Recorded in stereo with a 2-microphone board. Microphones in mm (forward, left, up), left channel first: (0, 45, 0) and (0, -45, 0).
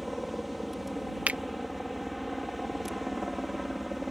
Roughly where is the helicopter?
Centre.